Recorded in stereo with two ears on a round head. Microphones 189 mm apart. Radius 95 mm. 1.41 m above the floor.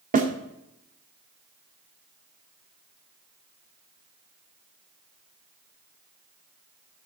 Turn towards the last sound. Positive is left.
turn(degrees=-40)  # may be behind; listen again after turning